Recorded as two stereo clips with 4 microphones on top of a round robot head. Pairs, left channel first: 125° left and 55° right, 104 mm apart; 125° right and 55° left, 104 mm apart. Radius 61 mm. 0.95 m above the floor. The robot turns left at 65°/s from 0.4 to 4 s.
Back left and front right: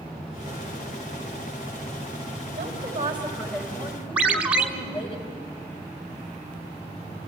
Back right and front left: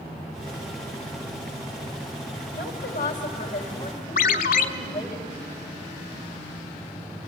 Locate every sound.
2.5 s a woman speaking: 90° right, 4 m; by 5.2 s 170° left, 4 m
4.2 s a ringtone: 135° right, 0.9 m